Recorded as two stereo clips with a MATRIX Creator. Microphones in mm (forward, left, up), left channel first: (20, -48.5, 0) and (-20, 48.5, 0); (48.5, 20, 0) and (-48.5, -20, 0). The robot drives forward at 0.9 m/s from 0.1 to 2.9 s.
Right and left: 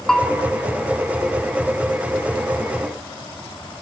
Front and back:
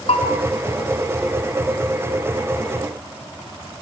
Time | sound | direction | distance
0.1 | a bell | 15° left | 2 m